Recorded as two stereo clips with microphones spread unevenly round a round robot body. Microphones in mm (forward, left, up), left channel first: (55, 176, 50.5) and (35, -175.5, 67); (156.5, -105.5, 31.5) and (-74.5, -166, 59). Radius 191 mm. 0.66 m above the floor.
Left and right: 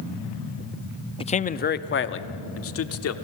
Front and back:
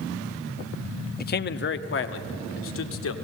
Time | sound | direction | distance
1.2 | a man speaking | 20° left | 0.7 m